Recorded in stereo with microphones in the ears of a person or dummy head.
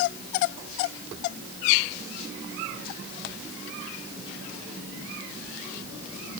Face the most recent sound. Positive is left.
No sound to turn to.